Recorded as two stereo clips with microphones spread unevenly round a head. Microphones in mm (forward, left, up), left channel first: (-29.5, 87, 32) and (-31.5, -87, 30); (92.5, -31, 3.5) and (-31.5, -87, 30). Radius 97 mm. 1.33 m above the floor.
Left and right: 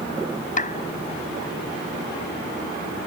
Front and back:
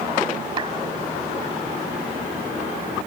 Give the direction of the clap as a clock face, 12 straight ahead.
7 o'clock.